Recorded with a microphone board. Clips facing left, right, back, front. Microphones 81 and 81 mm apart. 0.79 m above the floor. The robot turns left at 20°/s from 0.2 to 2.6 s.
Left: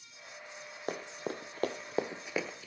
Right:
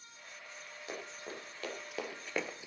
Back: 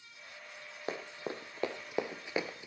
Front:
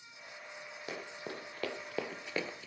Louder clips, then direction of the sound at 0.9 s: Left 7 dB, back 4 dB; 125° left.